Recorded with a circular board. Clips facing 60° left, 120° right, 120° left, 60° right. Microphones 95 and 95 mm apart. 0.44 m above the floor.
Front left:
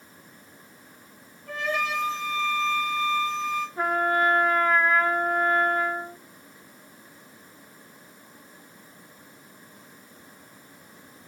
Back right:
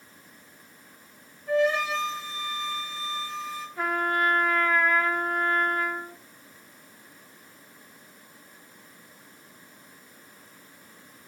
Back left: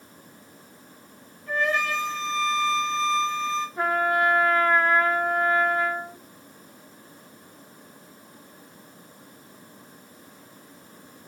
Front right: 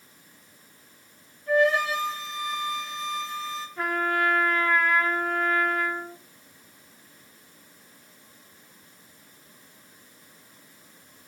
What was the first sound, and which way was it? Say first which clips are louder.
A flute: back right 5 dB, front right 4 dB; 15° left.